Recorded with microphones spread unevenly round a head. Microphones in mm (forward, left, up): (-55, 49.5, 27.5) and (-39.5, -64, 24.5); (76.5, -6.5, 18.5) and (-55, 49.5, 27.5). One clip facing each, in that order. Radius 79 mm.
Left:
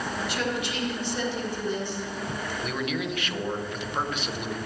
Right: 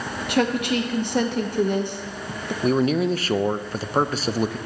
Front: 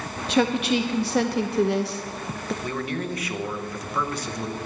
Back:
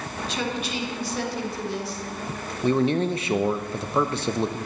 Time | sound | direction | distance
0.3 | a woman speaking | 50° right | 0.8 m
2.6 | a man speaking | 135° right | 0.5 m